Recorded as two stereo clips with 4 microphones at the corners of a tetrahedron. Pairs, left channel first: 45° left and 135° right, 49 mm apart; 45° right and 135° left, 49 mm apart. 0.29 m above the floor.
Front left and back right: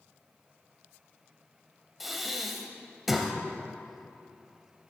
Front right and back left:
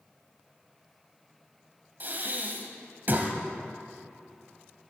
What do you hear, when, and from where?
2.0 s breathing: 135° left, 1.5 m